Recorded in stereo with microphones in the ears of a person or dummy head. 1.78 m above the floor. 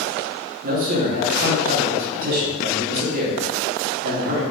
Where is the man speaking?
50° right (ahead or behind), 1.4 m.